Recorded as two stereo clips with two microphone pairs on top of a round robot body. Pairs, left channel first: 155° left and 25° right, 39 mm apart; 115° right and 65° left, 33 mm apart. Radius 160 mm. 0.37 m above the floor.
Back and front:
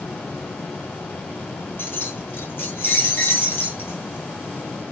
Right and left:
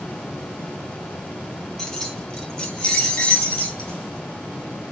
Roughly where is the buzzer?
I don't hear a buzzer.